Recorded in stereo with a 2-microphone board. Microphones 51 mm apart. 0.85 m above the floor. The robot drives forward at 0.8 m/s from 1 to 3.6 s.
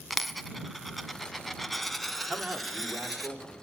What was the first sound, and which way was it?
A dropped coin, centre (ahead or behind).